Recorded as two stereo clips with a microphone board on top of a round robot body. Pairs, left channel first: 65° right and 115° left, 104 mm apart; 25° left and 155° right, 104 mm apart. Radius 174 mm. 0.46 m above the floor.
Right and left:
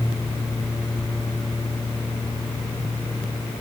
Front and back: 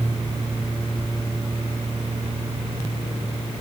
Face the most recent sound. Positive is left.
No sound to turn to.